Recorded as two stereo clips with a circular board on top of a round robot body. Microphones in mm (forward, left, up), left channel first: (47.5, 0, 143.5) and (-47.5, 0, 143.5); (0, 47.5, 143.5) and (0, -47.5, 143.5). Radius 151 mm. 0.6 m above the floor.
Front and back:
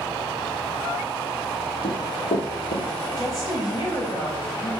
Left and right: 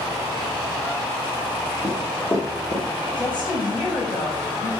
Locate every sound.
1.8 s running footsteps: 30° left, 2 m; by 2.9 s 15° left, 2.5 m
3.2 s a woman speaking: 50° left, 4 m